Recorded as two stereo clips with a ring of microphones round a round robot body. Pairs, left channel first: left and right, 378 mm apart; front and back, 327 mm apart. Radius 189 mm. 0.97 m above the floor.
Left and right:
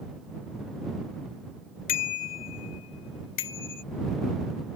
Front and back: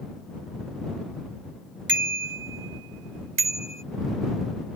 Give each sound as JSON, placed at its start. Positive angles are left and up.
{"t": 1.9, "sound": "a bicycle bell", "azimuth_deg": 120}